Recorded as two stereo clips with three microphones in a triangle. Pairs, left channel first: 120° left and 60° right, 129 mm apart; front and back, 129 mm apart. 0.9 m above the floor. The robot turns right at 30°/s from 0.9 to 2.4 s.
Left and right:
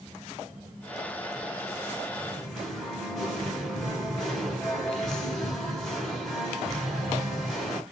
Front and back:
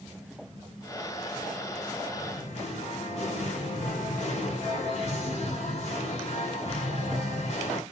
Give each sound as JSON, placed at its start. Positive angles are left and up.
{"t": 2.1, "sound": "singing", "azimuth_deg": 25, "distance_m": 1.5}